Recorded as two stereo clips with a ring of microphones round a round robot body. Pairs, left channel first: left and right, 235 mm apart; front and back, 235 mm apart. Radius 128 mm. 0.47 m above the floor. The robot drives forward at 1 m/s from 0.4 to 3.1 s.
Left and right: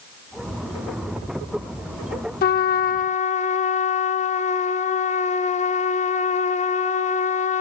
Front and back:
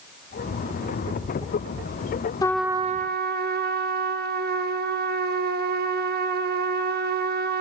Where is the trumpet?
65° left, 0.7 m; by 7.6 s 140° left, 0.8 m.